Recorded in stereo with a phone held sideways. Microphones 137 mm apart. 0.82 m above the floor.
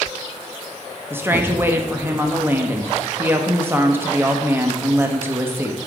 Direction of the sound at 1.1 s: 15° right (ahead or behind).